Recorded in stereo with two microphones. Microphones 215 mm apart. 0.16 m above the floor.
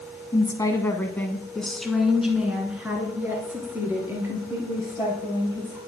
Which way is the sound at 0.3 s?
20° left (ahead or behind).